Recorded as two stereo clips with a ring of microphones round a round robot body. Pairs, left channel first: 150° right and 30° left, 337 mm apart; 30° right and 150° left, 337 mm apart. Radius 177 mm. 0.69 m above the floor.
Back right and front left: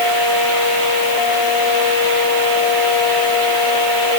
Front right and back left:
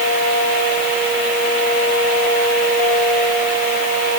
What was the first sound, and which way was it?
Only background noise.